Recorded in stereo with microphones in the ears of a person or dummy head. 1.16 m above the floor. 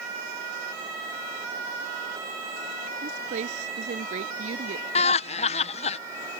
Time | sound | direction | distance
3.0 | a woman speaking | 40° right (ahead or behind) | ?
5.0 | laughter | 30° left (ahead or behind) | ?